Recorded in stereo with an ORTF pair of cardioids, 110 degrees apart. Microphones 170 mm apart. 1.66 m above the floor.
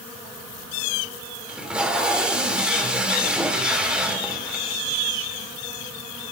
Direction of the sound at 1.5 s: 5° right.